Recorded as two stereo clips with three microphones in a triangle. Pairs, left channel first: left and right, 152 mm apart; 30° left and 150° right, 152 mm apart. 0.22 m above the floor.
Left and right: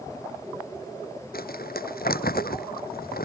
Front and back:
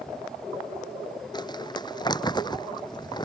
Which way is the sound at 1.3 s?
90° left.